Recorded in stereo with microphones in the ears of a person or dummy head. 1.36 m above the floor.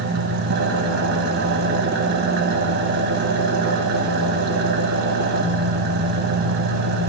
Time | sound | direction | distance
0.0 | an engine running | 60° right (ahead or behind) | 1.2 m